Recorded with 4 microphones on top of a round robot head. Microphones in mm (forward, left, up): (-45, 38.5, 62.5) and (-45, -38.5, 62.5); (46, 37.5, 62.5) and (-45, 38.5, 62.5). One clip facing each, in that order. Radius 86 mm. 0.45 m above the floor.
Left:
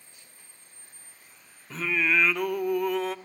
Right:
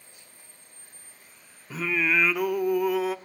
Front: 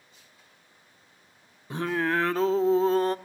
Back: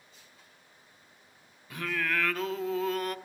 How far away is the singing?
About 0.7 m.